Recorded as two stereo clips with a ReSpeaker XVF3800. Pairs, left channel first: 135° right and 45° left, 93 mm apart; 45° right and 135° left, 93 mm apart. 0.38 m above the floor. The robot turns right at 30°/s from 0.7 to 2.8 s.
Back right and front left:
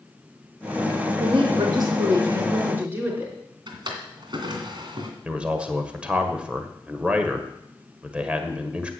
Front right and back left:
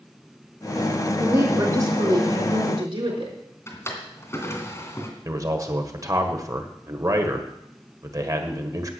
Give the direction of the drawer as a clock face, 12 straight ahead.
12 o'clock.